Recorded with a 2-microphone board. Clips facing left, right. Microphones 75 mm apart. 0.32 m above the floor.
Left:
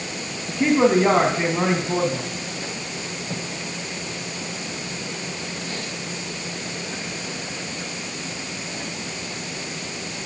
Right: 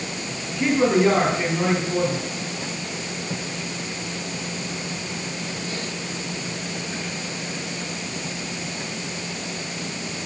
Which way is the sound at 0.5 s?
35° left (ahead or behind).